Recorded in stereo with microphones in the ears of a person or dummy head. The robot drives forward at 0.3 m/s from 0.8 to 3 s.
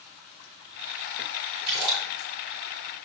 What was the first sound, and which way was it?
A splash, 55° right (ahead or behind).